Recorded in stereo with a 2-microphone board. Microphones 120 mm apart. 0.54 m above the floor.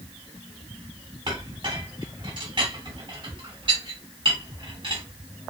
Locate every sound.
1.3 s a clink: 50° right (ahead or behind), 2.5 m